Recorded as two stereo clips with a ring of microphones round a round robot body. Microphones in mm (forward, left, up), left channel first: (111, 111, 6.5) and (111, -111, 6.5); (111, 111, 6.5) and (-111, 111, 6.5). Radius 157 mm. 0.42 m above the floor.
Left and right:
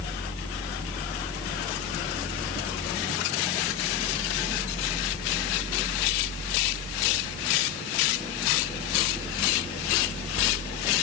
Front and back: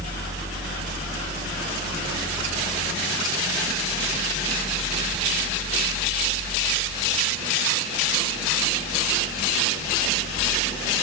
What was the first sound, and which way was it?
Only background noise.